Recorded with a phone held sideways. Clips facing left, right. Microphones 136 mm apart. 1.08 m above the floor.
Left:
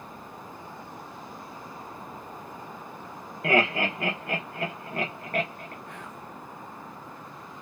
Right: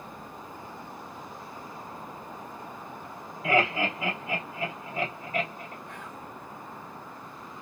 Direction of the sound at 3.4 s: 65° left (ahead or behind).